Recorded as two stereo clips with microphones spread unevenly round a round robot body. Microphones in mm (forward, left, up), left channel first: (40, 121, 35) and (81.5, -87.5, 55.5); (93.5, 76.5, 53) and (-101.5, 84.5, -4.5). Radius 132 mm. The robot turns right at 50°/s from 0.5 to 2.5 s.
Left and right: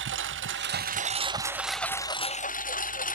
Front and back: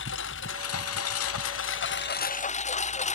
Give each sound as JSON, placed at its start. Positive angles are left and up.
{"t": 0.0, "sound": "a lawn mower", "azimuth_deg": -50}